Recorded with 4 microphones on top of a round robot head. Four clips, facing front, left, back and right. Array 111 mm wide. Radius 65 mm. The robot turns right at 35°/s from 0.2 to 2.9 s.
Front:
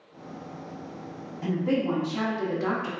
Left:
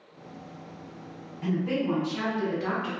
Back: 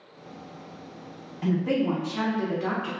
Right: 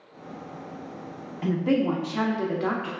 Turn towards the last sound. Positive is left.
turn(degrees=-60)